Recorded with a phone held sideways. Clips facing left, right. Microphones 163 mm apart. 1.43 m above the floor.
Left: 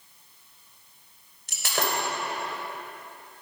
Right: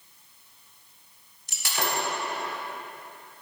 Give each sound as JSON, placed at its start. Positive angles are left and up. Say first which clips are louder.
{"t": 1.5, "sound": "breaking glass", "louder": "left 1 dB", "side_deg": 75, "distance_m": 3.0}